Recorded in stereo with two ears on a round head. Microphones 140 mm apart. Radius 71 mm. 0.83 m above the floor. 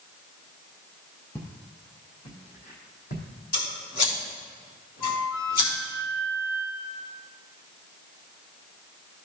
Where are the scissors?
65° left (ahead or behind), 2.5 m.